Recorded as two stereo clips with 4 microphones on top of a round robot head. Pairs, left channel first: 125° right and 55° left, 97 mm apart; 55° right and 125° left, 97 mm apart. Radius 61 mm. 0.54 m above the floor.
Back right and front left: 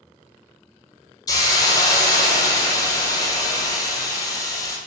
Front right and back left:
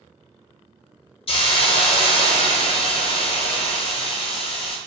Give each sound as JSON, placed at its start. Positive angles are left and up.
{"t": 1.3, "sound": "a hiss", "azimuth_deg": -80, "distance_m": 1.0}